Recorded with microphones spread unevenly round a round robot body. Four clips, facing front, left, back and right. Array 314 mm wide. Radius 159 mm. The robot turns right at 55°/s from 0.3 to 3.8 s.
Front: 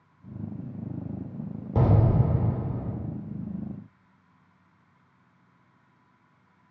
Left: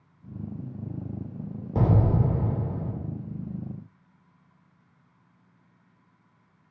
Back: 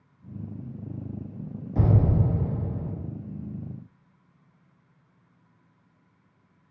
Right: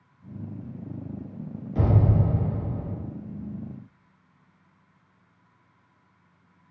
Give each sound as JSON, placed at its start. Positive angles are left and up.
{"t": 1.8, "sound": "an explosion", "azimuth_deg": 30, "distance_m": 1.4}